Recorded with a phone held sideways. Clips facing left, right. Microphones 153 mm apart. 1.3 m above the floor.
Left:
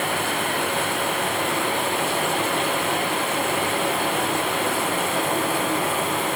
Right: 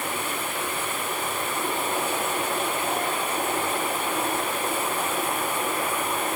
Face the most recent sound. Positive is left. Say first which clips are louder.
# left 5 dB
turn(degrees=85)